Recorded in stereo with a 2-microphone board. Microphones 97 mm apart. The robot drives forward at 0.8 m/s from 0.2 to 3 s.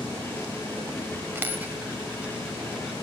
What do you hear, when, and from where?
1.4 s a dropped coin: 20° right (ahead or behind), 1.1 m; by 2.9 s 10° right (ahead or behind), 2.5 m